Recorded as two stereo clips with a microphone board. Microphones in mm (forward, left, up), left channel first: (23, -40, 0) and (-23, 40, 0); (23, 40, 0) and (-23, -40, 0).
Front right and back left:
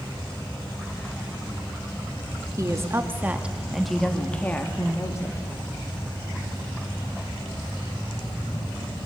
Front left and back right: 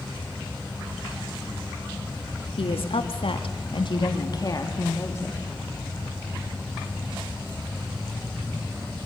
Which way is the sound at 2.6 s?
65° left.